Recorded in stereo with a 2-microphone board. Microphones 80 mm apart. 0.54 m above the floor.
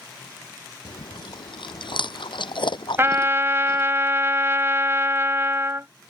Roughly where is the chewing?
Left.